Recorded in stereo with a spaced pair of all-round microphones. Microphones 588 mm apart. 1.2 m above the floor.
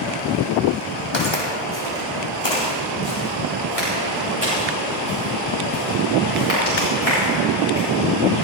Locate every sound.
1.1 s footsteps: 50° left (ahead or behind), 3 m; by 7.8 s 75° left (ahead or behind), 11 m